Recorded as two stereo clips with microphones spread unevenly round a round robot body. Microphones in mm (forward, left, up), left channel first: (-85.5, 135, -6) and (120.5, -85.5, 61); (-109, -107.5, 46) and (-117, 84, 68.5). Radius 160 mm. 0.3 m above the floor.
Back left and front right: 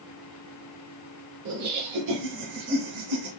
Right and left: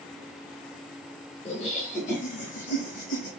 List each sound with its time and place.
1.4 s laughter: 70° right, 1.0 m; by 3.3 s 35° right, 2 m